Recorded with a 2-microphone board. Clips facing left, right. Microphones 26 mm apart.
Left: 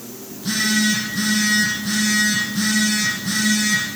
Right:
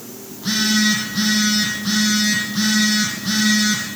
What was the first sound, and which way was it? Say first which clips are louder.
A phone buzzing: right 1 dB; 30° right (ahead or behind).